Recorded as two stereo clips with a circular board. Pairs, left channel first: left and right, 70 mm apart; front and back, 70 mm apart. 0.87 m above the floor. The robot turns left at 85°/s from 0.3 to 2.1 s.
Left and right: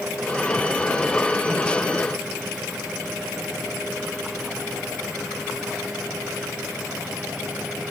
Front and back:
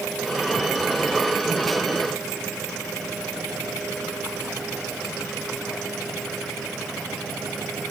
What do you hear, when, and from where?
Only background noise.